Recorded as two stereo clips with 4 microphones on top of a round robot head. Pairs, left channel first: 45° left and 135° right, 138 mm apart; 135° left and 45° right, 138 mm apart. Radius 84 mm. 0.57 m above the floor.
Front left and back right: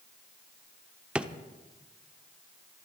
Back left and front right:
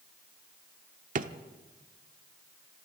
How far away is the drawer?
About 0.9 m.